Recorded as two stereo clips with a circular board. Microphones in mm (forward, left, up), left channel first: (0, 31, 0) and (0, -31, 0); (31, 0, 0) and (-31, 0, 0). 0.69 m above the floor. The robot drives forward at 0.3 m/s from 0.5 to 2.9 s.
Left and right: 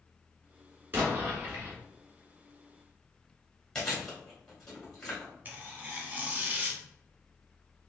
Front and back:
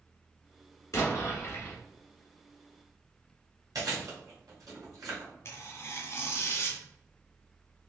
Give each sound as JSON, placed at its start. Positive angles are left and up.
{"t": 0.9, "sound": "an explosion", "azimuth_deg": -35, "distance_m": 1.3}
{"t": 3.8, "sound": "chewing", "azimuth_deg": 170, "distance_m": 2.0}
{"t": 5.5, "sound": "tearing paper", "azimuth_deg": -35, "distance_m": 0.8}